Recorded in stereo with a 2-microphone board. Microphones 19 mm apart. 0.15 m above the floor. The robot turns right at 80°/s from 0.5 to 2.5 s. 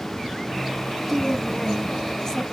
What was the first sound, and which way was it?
A woman speaking, 5° right.